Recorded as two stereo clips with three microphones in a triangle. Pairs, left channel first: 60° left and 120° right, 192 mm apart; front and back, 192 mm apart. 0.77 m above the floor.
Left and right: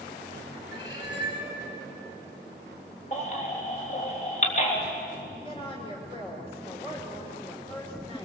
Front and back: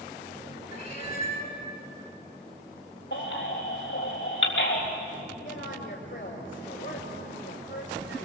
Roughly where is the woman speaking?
Ahead.